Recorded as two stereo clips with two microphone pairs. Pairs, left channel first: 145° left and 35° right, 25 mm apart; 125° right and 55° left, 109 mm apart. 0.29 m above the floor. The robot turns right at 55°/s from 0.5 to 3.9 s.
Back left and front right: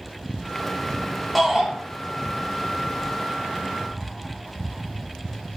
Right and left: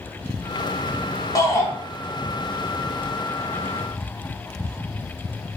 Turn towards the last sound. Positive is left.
turn(degrees=30)